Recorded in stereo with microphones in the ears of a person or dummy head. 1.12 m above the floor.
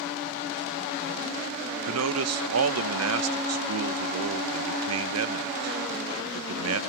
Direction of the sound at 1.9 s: 80° right.